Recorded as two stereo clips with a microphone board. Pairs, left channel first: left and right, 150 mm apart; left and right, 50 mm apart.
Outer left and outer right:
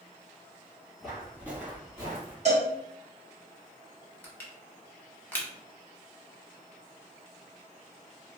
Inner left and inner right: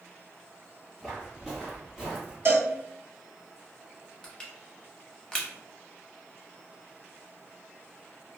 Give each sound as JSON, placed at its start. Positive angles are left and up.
{"t": 1.0, "sound": "footsteps", "side_deg": 0, "distance_m": 1.7}
{"t": 2.5, "sound": "a cowbell", "side_deg": -50, "distance_m": 0.9}
{"t": 4.2, "sound": "crushing", "side_deg": 15, "distance_m": 0.7}